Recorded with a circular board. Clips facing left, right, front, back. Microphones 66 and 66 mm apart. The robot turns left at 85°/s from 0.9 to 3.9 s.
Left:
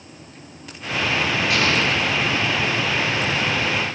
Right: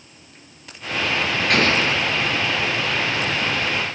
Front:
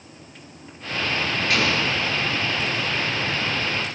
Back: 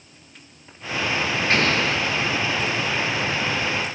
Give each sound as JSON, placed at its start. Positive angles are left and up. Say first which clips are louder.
{"t": 1.5, "sound": "an explosion", "louder": "right 3 dB, back 2 dB", "azimuth_deg": -125, "distance_m": 7.5}